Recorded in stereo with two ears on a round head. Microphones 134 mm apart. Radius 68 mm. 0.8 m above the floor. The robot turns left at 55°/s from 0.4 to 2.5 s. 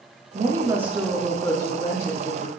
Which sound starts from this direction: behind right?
A woman speaking, at 0.3 s.